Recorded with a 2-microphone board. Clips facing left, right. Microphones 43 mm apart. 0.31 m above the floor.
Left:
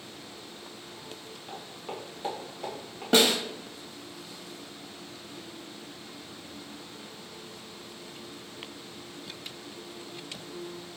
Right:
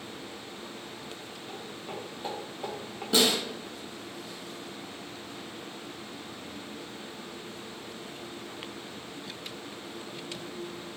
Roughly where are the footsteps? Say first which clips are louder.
Left 1 dB; centre.